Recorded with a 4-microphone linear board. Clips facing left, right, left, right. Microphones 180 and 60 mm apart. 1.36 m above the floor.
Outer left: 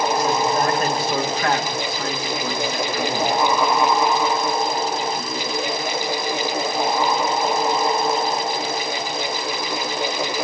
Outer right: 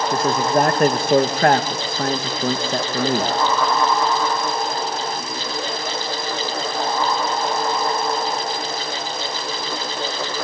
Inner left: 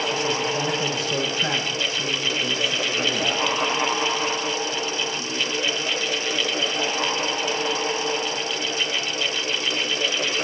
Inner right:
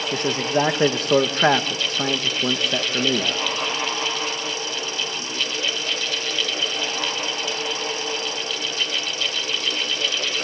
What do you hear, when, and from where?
0.1 s a man speaking: 50° right (ahead or behind), 1.8 m